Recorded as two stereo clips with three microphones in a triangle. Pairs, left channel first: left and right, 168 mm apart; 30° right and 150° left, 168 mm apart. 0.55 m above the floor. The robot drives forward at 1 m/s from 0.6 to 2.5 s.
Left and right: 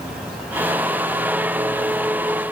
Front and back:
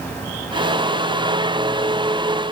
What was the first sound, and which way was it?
Only background noise.